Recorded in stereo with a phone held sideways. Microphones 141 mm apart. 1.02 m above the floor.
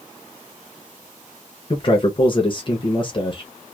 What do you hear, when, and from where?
1.7 s a man speaking: 35° left (ahead or behind), 0.7 m